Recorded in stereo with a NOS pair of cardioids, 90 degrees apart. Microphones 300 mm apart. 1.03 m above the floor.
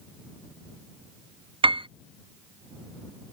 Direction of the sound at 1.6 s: 15° right.